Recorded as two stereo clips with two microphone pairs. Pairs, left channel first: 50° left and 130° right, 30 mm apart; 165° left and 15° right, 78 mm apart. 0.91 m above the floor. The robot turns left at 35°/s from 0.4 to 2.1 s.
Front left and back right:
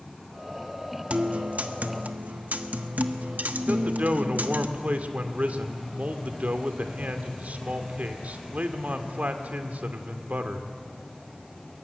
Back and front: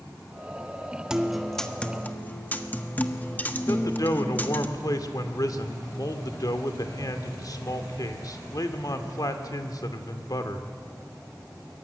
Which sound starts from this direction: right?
A guitar, at 1.1 s.